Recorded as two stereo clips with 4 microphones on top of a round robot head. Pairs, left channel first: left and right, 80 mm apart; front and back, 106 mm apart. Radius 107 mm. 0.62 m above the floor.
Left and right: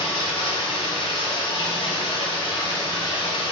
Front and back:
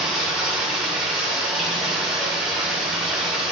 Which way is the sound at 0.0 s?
95° left.